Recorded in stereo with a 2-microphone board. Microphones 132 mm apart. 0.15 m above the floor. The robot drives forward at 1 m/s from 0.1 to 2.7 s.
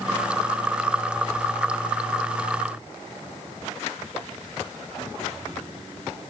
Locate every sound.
Only background noise.